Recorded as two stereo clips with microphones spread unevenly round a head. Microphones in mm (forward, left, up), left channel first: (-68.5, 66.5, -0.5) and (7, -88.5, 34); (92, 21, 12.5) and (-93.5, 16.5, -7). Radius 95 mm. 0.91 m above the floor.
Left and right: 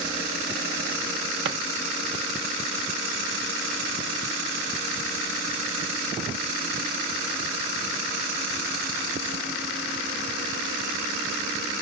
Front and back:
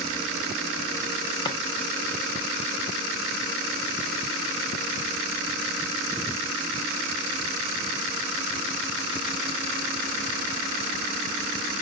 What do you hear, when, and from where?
1.4 s a drawer: 65° right, 0.5 m